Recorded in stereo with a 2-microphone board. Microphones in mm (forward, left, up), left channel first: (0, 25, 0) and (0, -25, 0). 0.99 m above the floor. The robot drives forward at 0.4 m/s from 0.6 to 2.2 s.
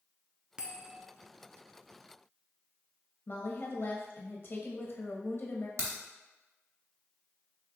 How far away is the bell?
About 0.6 m.